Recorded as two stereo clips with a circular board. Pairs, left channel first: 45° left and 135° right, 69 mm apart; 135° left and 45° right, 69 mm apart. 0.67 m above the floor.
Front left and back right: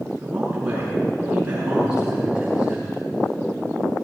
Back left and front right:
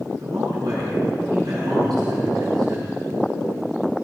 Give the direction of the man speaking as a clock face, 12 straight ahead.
2 o'clock.